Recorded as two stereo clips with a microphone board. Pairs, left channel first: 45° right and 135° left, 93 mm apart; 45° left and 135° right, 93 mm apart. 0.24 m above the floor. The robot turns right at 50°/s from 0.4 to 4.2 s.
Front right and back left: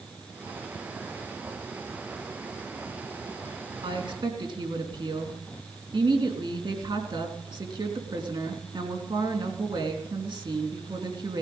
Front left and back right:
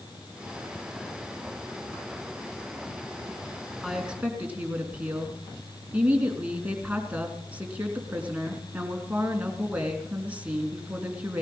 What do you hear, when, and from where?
3.8 s a woman speaking: 135° left, 3.5 m; by 11.4 s 155° left, 3.5 m